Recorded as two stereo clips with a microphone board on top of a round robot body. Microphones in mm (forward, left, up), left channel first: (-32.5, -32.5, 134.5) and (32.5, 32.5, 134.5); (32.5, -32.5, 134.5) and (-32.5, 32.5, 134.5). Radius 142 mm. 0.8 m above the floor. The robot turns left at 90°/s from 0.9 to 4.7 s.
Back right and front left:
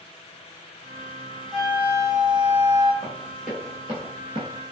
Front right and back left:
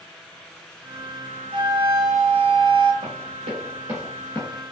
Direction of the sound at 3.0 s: 170° left.